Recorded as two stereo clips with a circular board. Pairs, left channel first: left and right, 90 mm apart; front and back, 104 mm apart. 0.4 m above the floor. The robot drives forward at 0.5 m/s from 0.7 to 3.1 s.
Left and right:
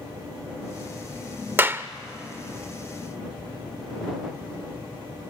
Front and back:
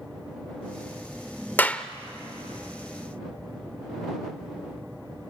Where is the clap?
50° right, 0.7 m; by 1.9 s 75° right, 0.7 m.